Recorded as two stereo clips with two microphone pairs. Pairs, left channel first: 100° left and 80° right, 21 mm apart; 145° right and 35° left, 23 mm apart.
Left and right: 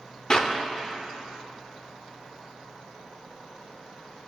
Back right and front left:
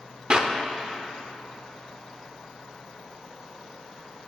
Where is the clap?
60° left, 0.7 m.